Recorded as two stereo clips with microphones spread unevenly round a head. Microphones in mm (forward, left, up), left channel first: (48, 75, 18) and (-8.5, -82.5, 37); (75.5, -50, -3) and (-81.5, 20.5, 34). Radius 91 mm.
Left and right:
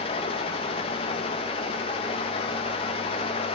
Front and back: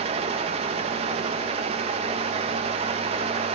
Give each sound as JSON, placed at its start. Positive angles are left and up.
{"t": 0.0, "sound": "a fan", "azimuth_deg": 130, "distance_m": 1.0}